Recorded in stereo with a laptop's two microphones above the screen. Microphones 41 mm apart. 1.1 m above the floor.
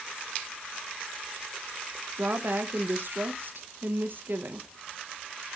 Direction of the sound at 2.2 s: 55° right (ahead or behind).